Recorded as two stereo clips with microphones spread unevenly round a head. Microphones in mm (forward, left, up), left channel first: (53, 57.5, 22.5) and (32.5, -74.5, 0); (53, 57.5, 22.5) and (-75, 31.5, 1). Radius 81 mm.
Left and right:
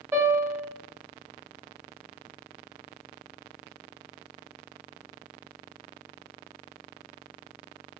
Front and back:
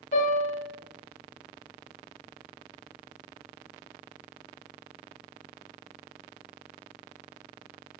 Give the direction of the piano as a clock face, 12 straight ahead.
1 o'clock.